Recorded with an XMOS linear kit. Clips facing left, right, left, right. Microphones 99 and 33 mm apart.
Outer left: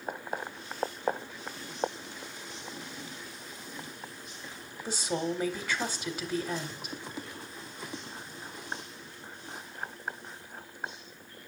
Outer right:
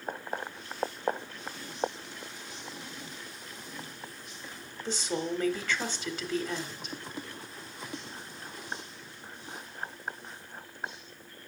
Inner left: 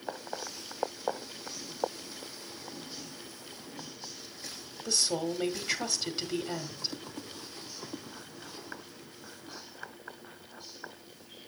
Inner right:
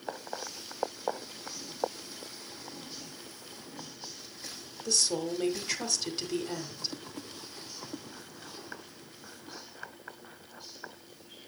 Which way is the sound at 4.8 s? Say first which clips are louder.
Outer left 1 dB, even; 10° left (ahead or behind).